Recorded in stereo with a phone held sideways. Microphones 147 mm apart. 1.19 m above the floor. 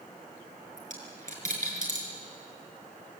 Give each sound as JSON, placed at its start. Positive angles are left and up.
{"t": 0.8, "sound": "a dropped coin", "side_deg": -60, "distance_m": 5.5}